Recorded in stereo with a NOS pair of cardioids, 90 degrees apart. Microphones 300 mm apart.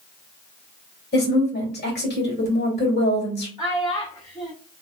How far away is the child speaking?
About 1.5 m.